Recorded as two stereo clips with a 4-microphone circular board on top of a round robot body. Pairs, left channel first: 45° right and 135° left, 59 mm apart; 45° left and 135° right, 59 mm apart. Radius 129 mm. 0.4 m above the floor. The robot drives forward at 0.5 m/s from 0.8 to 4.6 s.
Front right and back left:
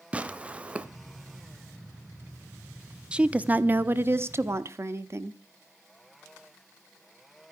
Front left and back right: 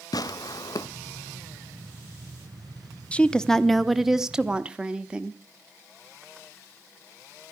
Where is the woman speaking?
85° left, 0.9 m; by 5.4 s 155° left, 1.1 m.